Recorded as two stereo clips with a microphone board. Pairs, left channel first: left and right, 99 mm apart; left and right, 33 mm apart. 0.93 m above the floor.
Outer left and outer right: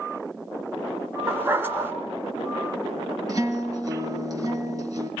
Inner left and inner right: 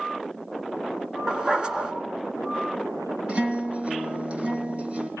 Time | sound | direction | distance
1.3 | a dog barking | 20° right (ahead or behind) | 4 m
3.3 | a guitar | 35° right (ahead or behind) | 4.5 m